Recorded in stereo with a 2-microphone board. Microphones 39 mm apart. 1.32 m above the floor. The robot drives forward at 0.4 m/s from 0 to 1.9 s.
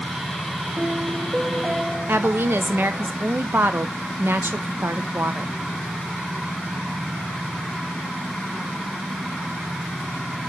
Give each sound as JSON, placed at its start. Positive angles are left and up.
{"t": 0.8, "sound": "a piano", "side_deg": -30, "distance_m": 0.6}
{"t": 2.1, "sound": "a woman speaking", "side_deg": -70, "distance_m": 1.0}